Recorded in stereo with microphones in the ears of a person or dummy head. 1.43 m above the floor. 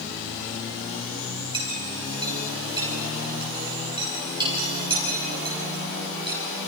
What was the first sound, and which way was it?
A clink, 20° right (ahead or behind).